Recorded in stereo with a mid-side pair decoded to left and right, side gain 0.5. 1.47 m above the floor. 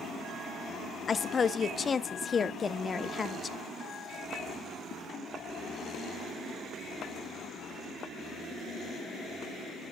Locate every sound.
1.1 s a woman speaking: 35° left, 0.8 m